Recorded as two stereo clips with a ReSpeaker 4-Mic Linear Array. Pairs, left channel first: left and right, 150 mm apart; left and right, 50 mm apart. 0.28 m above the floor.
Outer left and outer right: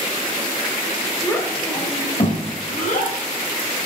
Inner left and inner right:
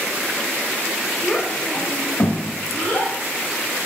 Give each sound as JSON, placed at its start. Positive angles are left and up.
{"t": 1.2, "sound": "a child speaking", "side_deg": 15, "distance_m": 1.1}